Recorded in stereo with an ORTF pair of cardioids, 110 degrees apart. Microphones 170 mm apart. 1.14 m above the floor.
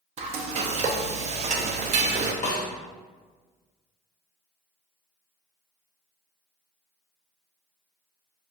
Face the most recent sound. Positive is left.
turn(degrees=45)